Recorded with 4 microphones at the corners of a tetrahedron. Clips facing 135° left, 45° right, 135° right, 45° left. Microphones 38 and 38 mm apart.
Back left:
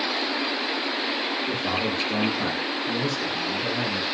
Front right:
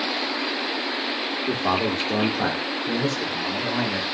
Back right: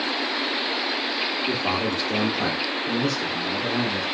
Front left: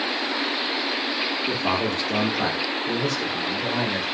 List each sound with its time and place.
1.5 s a man speaking: 30° right, 1.2 m; by 4.0 s 35° right, 2.5 m